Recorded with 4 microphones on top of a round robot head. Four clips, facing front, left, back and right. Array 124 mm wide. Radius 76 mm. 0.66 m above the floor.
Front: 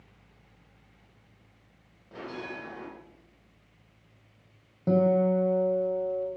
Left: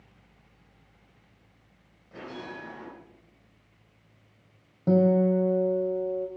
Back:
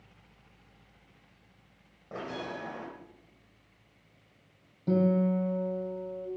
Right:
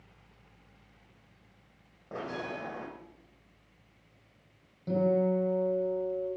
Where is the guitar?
50° left, 2.5 m.